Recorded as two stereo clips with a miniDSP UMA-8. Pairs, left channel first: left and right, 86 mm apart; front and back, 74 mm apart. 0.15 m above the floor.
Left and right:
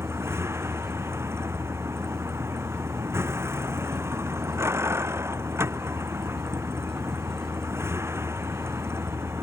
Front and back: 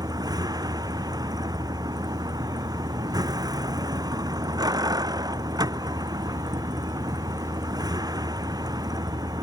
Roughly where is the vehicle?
Behind right.